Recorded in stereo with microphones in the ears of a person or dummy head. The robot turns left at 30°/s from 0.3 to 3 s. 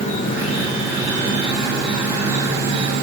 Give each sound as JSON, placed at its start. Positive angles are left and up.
{"t": 0.0, "sound": "an insect", "azimuth_deg": 45, "distance_m": 4.0}